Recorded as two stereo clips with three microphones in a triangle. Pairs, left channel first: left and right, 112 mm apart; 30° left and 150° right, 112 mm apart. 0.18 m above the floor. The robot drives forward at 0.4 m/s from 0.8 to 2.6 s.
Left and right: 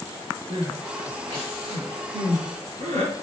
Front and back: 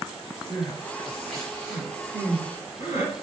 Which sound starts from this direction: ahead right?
Crying, at 0.5 s.